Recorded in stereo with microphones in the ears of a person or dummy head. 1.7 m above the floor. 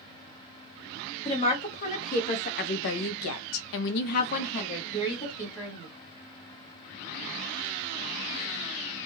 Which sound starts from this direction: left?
A woman speaking, at 1.2 s.